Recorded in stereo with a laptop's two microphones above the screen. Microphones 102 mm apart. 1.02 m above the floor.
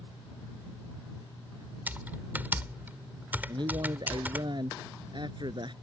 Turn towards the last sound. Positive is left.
turn(degrees=-50)  # may be behind; listen again after turning